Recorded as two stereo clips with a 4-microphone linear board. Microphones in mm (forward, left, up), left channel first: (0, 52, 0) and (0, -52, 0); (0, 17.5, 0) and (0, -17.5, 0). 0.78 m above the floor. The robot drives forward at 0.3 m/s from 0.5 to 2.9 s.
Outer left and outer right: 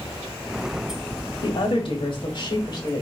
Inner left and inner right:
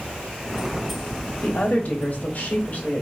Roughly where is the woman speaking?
Left.